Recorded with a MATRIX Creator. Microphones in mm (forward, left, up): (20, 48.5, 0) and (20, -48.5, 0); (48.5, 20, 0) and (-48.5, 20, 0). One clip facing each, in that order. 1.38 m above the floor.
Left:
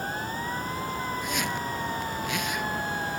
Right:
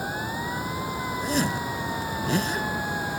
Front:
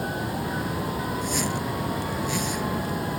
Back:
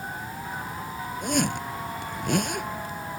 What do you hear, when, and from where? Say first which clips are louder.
0.0 s running water: right 2 dB, front 6 dB; 10° right
1.2 s a zipper: right 4 dB, back 1 dB; 145° right